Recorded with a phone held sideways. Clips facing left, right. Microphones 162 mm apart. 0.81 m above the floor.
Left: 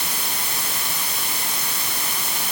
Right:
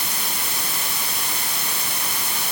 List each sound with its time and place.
Only background noise.